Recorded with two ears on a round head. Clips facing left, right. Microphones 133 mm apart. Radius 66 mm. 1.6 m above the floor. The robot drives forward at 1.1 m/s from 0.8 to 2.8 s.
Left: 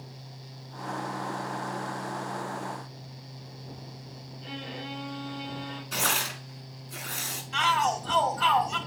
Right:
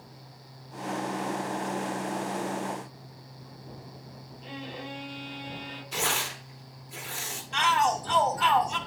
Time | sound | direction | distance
4.4 | a violin | 85° left | 5 m
5.9 | tearing paper | 70° left (ahead or behind) | 2.5 m
7.5 | a shout | centre (ahead or behind) | 1.9 m